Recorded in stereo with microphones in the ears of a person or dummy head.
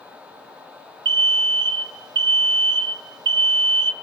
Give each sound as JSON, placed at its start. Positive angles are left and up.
{"t": 1.1, "sound": "an alarm", "side_deg": -25, "distance_m": 1.3}